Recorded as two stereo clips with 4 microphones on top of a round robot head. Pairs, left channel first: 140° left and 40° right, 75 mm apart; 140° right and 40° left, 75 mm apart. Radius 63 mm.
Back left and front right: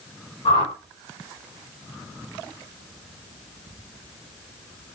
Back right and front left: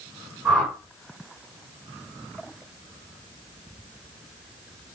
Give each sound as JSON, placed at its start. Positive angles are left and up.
{"t": 0.5, "sound": "a whoosh", "azimuth_deg": 130, "distance_m": 5.0}